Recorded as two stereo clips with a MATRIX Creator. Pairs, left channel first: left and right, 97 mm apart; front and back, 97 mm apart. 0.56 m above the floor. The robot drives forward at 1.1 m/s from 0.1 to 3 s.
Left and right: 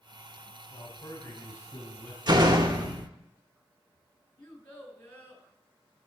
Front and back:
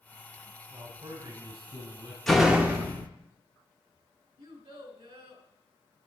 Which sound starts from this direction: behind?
A child speaking, at 4.4 s.